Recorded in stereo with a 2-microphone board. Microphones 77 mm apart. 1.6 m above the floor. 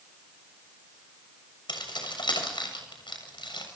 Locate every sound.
1.7 s keys jangling: 80° left, 6.5 m; by 3.7 s 85° left, 7 m